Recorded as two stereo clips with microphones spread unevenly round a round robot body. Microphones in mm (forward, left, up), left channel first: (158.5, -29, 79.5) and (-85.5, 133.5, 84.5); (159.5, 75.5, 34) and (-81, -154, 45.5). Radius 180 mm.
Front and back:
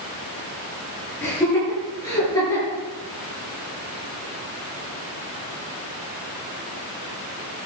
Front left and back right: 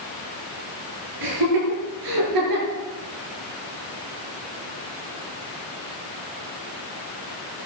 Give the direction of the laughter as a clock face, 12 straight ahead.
4 o'clock.